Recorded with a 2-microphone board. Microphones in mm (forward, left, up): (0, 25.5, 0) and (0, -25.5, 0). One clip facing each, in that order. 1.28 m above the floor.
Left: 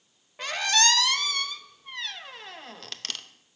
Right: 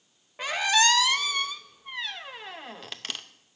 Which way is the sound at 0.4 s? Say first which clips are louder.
Right 2 dB; 15° right (ahead or behind).